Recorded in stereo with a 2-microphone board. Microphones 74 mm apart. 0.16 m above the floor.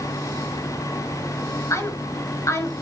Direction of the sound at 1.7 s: 40° left (ahead or behind).